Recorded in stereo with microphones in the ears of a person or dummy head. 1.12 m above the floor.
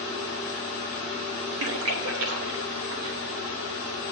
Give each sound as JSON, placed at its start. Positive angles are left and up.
{"t": 1.6, "sound": "a splash", "side_deg": -80, "distance_m": 1.0}